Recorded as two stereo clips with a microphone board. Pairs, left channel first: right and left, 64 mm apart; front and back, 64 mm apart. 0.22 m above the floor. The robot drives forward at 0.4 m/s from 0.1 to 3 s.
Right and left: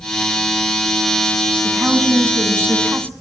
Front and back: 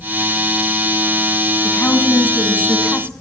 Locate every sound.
1.6 s a woman speaking: 40° left, 1.9 m; by 3.1 s 55° left, 1.6 m